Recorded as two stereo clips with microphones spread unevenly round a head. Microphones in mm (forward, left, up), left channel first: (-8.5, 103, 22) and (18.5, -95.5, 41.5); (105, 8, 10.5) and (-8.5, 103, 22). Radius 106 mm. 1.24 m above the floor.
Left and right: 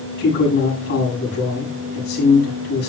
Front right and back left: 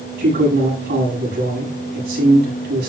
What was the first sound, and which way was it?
A man speaking, 140° left.